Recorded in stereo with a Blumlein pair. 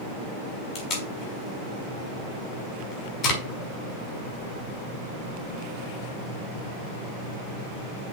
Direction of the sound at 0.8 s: 35° left.